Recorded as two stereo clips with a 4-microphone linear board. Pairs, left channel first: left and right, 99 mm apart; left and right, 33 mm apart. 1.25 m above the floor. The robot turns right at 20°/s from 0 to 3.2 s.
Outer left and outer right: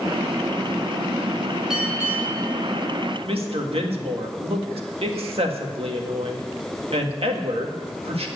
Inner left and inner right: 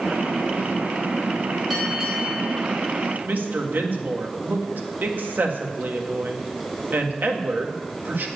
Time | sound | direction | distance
1.7 | a bell | 5° right (ahead or behind) | 3 m
3.2 | a woman speaking | 75° right (ahead or behind) | 1.6 m